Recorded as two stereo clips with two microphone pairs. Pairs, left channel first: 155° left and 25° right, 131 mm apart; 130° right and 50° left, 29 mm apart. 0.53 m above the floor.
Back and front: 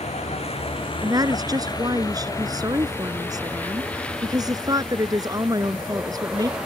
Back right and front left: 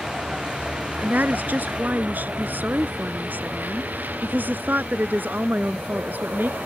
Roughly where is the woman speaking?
Ahead left.